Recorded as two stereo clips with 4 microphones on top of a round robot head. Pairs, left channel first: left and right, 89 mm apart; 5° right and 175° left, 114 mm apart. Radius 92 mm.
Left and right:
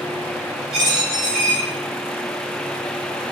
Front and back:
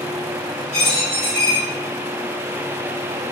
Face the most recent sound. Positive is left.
turn(degrees=-85)